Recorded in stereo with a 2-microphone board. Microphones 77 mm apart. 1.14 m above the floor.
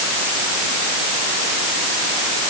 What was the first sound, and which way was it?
Only background noise.